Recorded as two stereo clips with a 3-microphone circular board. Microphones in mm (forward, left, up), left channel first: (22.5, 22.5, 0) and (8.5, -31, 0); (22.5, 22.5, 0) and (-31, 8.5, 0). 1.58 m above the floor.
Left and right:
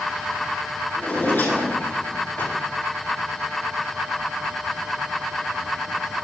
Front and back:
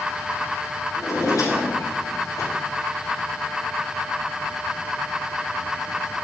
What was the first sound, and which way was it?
A drawer, 20° left.